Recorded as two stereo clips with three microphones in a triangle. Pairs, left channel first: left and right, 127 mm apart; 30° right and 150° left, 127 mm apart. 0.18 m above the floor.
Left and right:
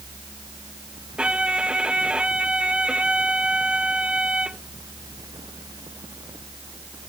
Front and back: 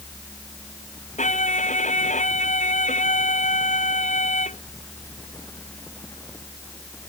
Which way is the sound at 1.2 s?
10° right.